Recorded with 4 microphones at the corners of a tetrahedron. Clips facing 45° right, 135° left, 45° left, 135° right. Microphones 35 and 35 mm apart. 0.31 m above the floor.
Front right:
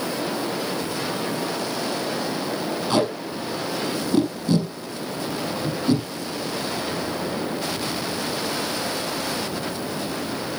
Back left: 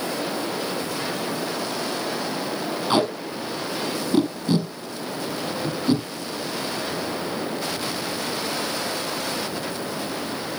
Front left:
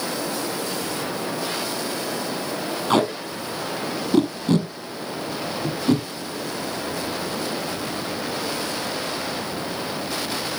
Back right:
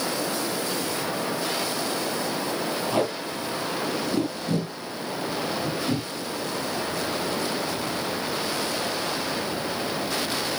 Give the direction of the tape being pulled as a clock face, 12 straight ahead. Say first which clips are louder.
Back left 1 dB, front left 8 dB; 10 o'clock.